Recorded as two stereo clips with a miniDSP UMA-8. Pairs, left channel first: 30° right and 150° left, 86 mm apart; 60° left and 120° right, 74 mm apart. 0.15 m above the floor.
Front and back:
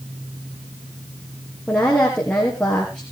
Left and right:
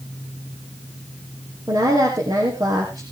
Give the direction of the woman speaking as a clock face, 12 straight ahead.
4 o'clock.